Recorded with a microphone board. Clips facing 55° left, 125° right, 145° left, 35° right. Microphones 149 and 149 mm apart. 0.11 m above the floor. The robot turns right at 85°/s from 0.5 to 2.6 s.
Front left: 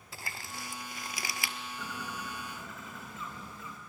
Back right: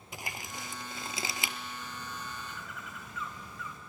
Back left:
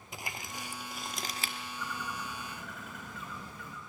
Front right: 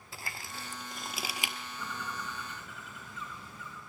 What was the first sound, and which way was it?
Crumpling, 170° right.